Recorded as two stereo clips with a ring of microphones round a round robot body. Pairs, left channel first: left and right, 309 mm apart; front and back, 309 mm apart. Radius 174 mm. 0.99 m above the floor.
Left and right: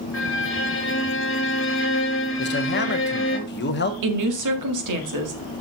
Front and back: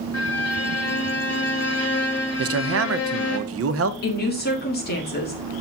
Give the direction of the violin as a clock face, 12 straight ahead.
11 o'clock.